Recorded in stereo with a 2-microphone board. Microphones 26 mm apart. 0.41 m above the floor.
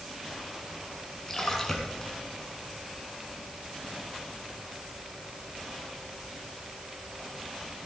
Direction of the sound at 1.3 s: 15° left (ahead or behind).